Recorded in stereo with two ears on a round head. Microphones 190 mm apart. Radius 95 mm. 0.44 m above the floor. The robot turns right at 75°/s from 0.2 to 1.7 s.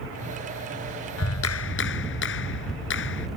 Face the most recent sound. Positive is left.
turn(degrees=115)